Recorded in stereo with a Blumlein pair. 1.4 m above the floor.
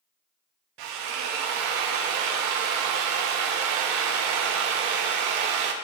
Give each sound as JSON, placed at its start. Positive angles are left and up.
{"t": 0.8, "sound": "a drill", "azimuth_deg": -45, "distance_m": 1.1}